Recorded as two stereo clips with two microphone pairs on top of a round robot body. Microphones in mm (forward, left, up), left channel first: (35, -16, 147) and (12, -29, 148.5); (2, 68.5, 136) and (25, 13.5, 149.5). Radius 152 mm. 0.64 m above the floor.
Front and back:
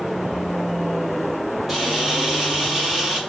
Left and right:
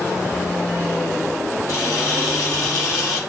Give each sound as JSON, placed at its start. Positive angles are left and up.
{"t": 1.7, "sound": "a camera shutter", "azimuth_deg": 125, "distance_m": 3.5}